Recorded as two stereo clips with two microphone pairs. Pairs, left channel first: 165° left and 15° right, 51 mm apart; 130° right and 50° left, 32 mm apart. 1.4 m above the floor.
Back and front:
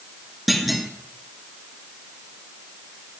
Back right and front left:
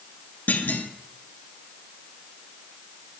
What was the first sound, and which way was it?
A clunk, 105° right.